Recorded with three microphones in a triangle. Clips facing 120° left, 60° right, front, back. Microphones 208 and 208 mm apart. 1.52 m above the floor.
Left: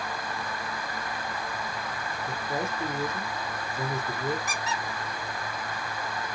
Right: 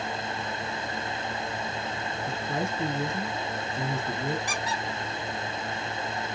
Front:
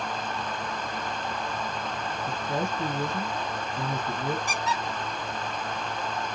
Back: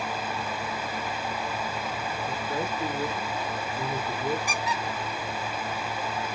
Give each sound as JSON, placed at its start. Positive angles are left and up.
{"t": 2.3, "sound": "a man speaking", "azimuth_deg": -25, "distance_m": 1.6}
{"t": 4.5, "sound": "a squeak", "azimuth_deg": 125, "distance_m": 1.6}